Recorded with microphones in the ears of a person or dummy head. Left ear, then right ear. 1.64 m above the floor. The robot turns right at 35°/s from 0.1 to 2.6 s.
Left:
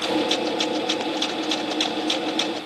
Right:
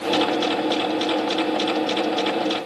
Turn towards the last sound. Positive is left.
No sound to turn to.